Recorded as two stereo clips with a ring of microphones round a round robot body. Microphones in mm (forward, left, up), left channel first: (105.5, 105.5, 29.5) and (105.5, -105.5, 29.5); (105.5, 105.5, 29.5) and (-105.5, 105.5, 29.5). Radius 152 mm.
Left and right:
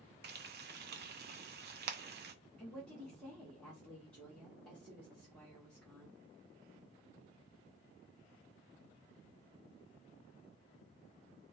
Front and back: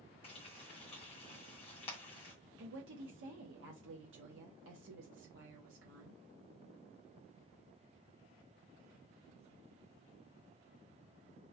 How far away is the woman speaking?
About 0.8 m.